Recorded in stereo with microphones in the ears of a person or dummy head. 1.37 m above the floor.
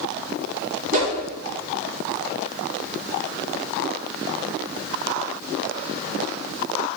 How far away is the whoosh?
About 3 m.